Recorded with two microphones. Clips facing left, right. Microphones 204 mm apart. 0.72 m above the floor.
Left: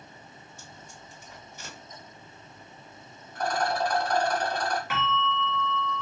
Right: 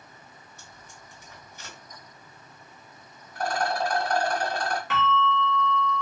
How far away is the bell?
About 1.1 m.